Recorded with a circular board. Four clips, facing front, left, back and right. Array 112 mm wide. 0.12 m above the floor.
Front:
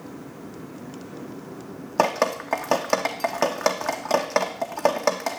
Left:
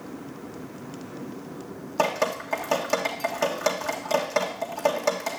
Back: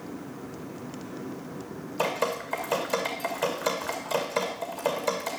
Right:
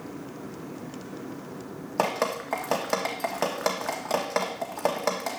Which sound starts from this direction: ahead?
Dripping, at 2.0 s.